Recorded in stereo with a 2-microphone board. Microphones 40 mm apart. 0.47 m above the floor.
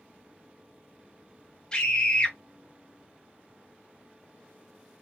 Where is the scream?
20° left (ahead or behind), 1.7 m.